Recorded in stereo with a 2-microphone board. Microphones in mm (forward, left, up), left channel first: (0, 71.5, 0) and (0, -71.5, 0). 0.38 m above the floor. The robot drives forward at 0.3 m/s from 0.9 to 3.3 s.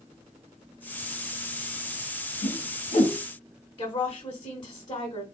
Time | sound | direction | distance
2.4 | a whoosh | 65° left (ahead or behind) | 0.6 m
3.8 | a woman speaking | 35° left (ahead or behind) | 1.0 m